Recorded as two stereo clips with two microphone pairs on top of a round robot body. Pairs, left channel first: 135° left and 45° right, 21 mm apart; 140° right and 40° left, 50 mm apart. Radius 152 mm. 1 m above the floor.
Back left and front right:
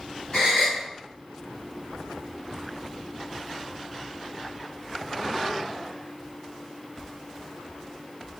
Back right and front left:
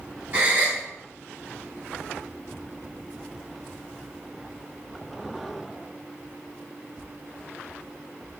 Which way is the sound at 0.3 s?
95° left.